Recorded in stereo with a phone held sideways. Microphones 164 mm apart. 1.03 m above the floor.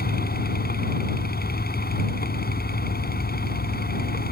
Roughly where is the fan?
Left.